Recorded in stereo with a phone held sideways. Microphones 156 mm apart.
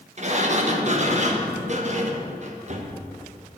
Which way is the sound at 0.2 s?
50° right (ahead or behind).